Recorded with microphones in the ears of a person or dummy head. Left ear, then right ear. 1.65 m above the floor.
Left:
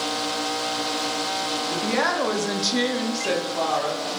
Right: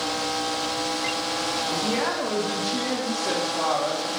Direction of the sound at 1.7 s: 60° left (ahead or behind).